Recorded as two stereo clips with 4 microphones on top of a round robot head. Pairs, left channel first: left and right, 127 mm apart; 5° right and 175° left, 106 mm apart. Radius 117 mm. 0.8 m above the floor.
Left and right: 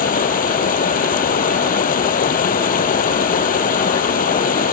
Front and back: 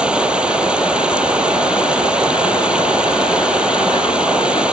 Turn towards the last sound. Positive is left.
turn(degrees=95)